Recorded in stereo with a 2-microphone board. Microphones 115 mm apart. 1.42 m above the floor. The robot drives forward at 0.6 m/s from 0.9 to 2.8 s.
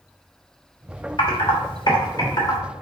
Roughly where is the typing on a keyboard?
Left.